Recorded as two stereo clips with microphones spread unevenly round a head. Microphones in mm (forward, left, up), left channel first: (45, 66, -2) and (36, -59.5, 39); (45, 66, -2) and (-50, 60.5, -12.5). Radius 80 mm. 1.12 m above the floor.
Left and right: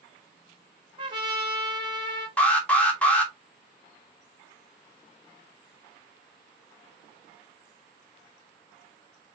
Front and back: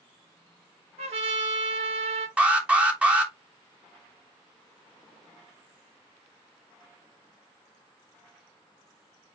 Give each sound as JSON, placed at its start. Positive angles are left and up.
{"t": 1.0, "sound": "a trumpet", "azimuth_deg": -155, "distance_m": 1.1}
{"t": 2.4, "sound": "an alarm", "azimuth_deg": 125, "distance_m": 1.1}